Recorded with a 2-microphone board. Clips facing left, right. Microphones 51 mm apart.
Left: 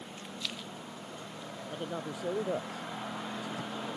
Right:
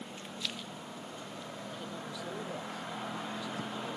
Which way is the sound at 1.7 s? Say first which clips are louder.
Left 8 dB; 45° left (ahead or behind).